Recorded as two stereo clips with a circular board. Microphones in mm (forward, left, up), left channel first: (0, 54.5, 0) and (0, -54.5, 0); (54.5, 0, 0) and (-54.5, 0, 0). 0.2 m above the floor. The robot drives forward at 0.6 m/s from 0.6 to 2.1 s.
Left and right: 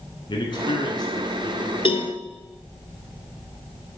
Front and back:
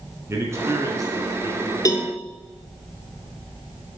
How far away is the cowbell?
About 0.7 m.